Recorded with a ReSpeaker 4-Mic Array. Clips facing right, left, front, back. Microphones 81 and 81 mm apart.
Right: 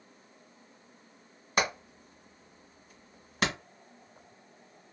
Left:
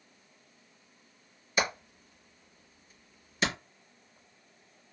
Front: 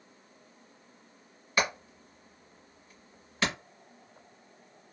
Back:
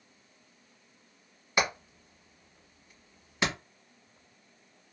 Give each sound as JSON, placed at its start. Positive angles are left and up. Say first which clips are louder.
{"t": 1.6, "sound": "hammering", "louder": "right 1 dB, even", "azimuth_deg": -110, "distance_m": 1.5}